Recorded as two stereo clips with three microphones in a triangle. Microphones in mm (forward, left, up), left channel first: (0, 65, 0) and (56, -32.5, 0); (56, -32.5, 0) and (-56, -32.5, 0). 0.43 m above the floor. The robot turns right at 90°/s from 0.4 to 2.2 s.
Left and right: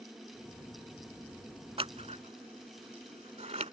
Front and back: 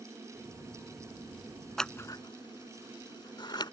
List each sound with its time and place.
1.8 s scissors: 85° right; by 3.7 s 50° right